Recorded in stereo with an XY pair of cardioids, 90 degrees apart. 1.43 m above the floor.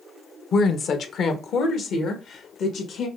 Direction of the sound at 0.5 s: 65° left.